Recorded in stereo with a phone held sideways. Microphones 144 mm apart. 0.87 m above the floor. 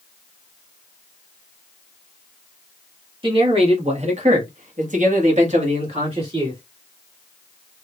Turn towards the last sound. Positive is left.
turn(degrees=-40)  # may be behind; listen again after turning